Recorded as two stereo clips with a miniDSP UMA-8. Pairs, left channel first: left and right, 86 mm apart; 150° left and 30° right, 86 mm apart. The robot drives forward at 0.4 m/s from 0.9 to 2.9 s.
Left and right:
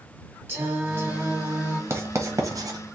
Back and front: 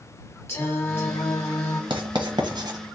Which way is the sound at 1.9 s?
35° right.